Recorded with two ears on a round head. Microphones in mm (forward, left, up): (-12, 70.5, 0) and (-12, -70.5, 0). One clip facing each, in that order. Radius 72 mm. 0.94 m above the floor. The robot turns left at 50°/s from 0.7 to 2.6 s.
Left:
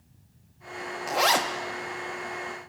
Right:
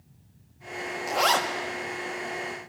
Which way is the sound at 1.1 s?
Centre (ahead or behind).